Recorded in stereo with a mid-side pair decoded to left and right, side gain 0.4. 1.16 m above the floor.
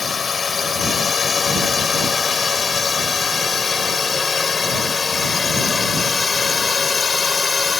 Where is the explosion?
I don't hear an explosion.